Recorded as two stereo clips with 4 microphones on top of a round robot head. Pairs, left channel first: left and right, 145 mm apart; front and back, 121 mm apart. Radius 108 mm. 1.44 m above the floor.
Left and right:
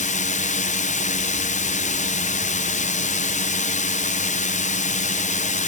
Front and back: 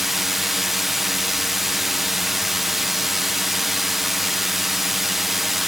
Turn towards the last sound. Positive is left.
turn(degrees=90)